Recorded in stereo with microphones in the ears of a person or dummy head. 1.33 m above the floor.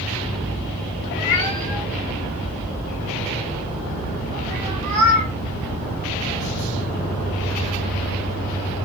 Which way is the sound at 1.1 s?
30° left (ahead or behind).